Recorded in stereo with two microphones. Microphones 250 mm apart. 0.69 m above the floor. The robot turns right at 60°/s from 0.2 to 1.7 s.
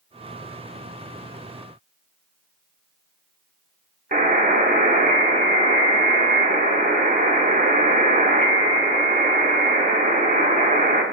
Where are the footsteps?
I don't hear footsteps.